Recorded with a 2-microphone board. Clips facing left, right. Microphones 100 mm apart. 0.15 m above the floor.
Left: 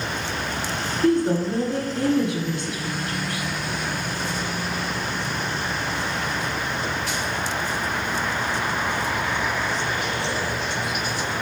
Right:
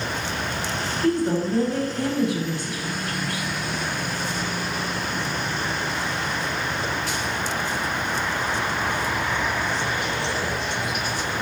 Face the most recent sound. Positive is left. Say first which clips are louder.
# left 2 dB
turn(degrees=25)  # may be behind; listen again after turning